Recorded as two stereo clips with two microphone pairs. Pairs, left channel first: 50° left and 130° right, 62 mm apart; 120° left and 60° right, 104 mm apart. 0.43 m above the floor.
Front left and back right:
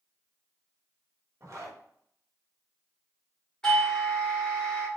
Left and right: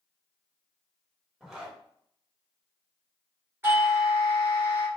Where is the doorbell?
15° right, 1.6 m.